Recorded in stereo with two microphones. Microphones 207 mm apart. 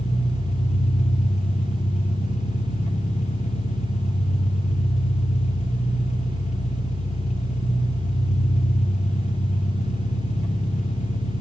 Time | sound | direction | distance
0.0 | an engine running | 30° left (ahead or behind) | 0.9 m